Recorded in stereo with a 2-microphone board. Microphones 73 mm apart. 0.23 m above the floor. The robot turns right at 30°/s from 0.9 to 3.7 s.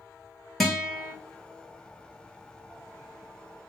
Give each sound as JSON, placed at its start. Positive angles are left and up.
{"t": 0.6, "sound": "a guitar", "side_deg": 0, "distance_m": 1.0}